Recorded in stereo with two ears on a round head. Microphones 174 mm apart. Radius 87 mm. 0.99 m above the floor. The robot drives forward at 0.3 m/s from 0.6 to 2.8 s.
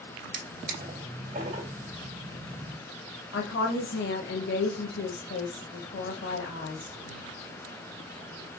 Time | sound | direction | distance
0.3 | a drawer | 45° right (ahead or behind) | 1.9 m
3.3 | a woman speaking | 60° left (ahead or behind) | 0.9 m